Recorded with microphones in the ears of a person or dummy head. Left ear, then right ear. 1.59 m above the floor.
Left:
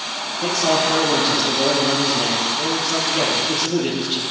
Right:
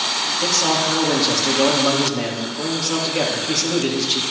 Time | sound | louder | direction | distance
0.4 | a man speaking | left 2 dB | 60° right (ahead or behind) | 3.5 m